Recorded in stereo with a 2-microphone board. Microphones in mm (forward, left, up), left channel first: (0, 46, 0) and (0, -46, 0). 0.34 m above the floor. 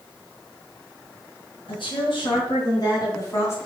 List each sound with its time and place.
1.7 s a woman speaking: 65° left (ahead or behind), 4.5 m; by 3.6 s 30° left (ahead or behind), 2.5 m